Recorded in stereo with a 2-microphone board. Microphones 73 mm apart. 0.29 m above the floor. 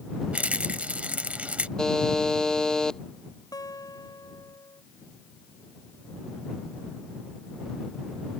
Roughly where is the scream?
I don't hear a scream.